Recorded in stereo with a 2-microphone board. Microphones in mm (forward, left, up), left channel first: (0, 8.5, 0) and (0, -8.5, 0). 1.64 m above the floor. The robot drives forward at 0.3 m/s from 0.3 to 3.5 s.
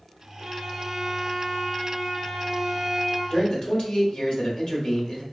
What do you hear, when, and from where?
0.4 s a violin: 30° right (ahead or behind), 1.4 m; by 3.2 s 25° right (ahead or behind), 1.7 m
3.3 s a man speaking: 55° left (ahead or behind), 0.9 m